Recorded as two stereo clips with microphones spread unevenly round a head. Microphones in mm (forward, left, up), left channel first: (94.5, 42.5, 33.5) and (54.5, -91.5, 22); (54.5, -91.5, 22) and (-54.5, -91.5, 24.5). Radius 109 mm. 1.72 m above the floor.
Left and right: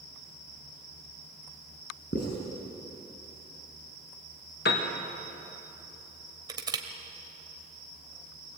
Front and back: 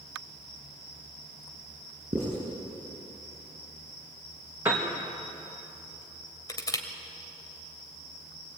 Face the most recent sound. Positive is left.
turn(degrees=-50)